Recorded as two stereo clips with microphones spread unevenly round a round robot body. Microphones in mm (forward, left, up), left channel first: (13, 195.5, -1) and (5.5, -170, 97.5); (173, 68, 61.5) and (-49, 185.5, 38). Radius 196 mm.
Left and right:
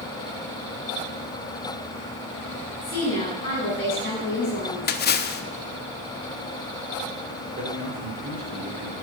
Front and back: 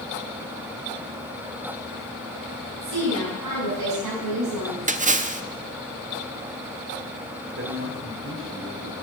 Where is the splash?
110° left, 0.9 m.